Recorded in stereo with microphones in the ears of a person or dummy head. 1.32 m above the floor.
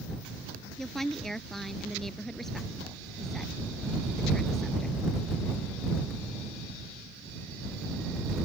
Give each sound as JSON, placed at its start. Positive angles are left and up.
{"t": 0.8, "sound": "a woman speaking", "side_deg": 5}